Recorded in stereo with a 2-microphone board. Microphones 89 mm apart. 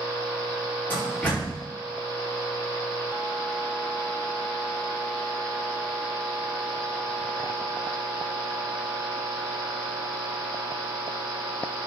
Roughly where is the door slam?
Left.